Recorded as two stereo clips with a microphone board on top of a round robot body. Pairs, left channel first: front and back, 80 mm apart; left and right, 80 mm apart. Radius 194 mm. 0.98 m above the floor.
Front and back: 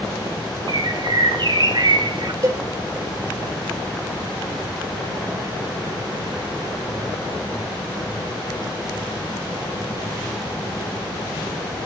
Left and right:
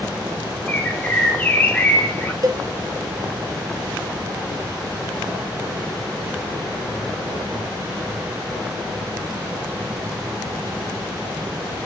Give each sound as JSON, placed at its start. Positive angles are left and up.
{"t": 0.7, "sound": "a bird", "azimuth_deg": 160, "distance_m": 2.0}
{"t": 2.4, "sound": "a cowbell", "azimuth_deg": -135, "distance_m": 2.5}